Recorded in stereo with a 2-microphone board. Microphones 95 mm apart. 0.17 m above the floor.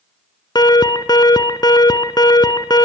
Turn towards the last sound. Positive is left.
turn(degrees=50)  # may be behind; listen again after turning